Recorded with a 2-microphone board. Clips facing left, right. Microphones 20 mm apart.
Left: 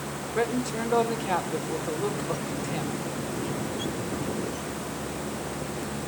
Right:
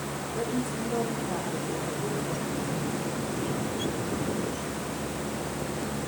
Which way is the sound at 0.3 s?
60° left (ahead or behind).